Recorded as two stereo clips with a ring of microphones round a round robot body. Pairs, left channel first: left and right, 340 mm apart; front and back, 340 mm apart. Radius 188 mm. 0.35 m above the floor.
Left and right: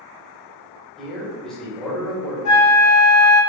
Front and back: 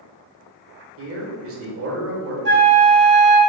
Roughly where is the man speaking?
Behind.